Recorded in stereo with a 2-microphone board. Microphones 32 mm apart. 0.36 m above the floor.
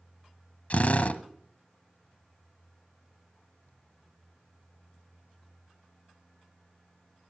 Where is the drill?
55° left (ahead or behind), 0.8 m.